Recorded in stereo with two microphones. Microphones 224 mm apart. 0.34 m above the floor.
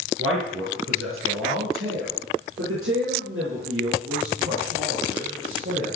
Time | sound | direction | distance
0.2 | a man speaking | 75° right (ahead or behind) | 5 m